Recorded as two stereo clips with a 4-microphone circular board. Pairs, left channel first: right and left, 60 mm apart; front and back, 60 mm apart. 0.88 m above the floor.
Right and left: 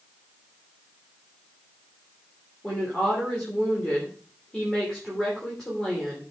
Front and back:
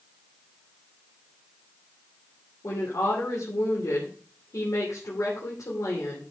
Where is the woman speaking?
10° right, 2.5 m.